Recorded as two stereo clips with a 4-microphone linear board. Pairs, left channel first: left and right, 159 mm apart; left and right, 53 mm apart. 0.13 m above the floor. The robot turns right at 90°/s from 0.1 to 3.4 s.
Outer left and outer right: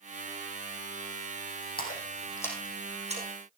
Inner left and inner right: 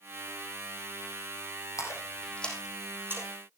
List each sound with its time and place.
1.8 s a splash: 70° left (ahead or behind), 3.5 m; by 3.3 s 55° right (ahead or behind), 3.5 m